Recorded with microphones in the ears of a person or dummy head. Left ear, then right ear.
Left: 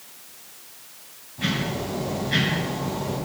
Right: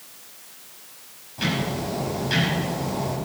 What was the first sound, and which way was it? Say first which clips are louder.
Ticking: right 1 dB; 80° right.